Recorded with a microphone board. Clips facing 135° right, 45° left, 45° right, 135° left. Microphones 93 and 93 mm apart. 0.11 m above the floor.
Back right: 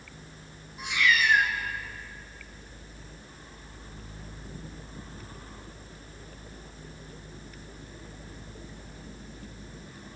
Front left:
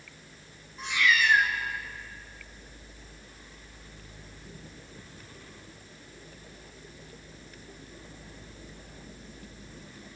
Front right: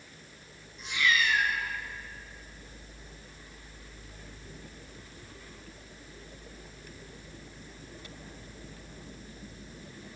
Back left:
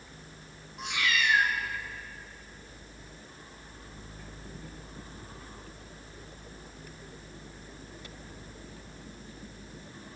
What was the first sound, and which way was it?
A cat meowing, 150° left.